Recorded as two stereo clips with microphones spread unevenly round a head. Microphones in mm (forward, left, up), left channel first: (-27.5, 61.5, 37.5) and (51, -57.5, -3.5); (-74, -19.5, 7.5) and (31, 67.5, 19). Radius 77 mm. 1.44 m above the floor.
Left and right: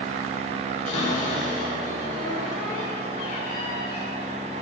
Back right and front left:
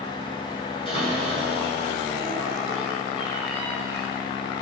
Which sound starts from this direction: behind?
A cupboard door, at 0.8 s.